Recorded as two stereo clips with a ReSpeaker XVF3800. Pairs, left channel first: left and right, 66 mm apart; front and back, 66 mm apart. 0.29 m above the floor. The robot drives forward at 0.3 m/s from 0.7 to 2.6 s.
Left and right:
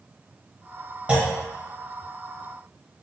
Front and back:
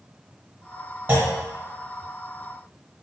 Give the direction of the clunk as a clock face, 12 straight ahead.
5 o'clock.